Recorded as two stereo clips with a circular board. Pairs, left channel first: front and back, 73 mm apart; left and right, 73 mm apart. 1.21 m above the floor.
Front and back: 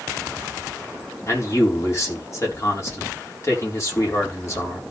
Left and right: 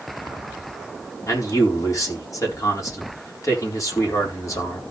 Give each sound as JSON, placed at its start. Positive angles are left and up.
{"t": 1.3, "sound": "a man speaking", "azimuth_deg": 50, "distance_m": 4.0}